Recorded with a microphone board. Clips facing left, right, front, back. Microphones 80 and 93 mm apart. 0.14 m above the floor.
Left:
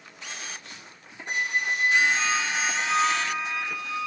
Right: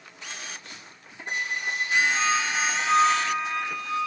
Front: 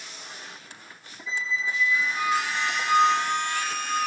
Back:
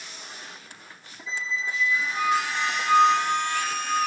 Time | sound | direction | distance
1.3 | a squeak | 130° right | 0.8 m